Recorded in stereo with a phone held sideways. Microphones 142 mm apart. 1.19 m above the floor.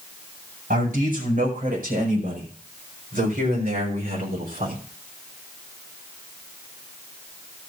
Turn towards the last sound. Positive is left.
turn(degrees=-85)